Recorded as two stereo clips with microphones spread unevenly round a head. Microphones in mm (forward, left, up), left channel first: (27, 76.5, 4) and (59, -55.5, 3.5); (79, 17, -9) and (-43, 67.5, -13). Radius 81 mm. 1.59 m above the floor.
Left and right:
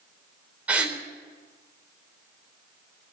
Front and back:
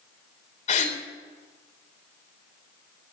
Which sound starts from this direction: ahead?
A gasp, at 0.7 s.